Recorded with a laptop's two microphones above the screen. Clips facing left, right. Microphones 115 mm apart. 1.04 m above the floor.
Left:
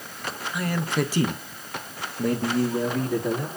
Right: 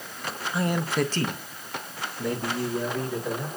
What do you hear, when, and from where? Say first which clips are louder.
0.5 s a man speaking: right 1 dB; 35° right (ahead or behind), 0.5 m; by 3.5 s 60° left (ahead or behind), 1.9 m